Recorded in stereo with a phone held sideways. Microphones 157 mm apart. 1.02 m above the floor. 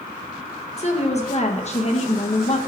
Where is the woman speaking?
45° left (ahead or behind), 1.3 m.